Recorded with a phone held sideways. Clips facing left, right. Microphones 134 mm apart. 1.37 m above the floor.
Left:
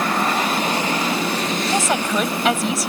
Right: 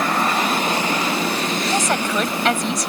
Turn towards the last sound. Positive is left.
turn(degrees=5)  # may be behind; listen again after turning